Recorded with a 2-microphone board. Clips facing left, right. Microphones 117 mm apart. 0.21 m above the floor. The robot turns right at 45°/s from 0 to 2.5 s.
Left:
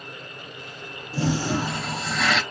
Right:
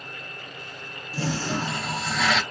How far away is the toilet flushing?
About 0.9 m.